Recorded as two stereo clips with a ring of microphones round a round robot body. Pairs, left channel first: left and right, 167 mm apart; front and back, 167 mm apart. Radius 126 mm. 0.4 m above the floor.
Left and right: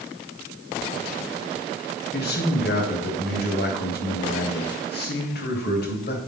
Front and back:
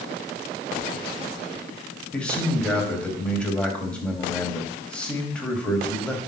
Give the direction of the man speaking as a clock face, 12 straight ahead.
9 o'clock.